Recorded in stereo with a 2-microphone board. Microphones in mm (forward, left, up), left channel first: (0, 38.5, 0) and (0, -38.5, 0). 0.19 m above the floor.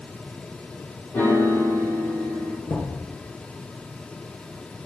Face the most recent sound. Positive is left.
turn(degrees=50)  # may be behind; listen again after turning